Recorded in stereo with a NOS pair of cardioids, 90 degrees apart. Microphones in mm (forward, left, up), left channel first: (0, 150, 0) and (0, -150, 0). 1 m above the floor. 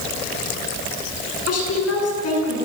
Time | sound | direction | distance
1.5 | a woman speaking | 55° left | 9 m